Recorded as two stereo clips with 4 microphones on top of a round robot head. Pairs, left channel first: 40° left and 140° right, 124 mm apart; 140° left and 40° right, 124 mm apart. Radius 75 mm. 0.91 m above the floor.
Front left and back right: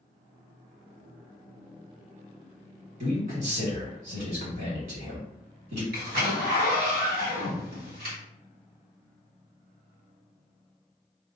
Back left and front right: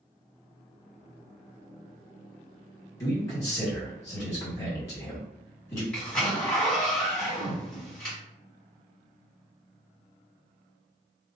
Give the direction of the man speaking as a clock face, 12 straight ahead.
5 o'clock.